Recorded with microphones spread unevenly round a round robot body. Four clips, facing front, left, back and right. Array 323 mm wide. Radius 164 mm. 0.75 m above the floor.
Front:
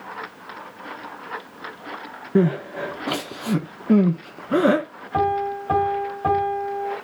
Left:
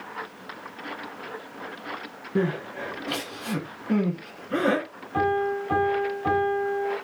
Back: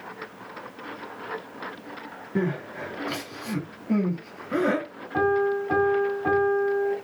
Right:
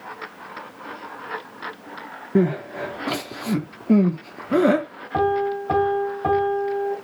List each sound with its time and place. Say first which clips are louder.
2.4 s crying: right 6 dB, front 8 dB; 40° right, 1.6 m
5.1 s a piano: right 3 dB, front 1 dB; 40° right, 4 m